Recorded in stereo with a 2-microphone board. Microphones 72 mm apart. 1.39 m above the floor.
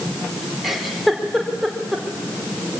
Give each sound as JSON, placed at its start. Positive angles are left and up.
{"t": 0.6, "sound": "a giggle", "side_deg": -5, "distance_m": 3.5}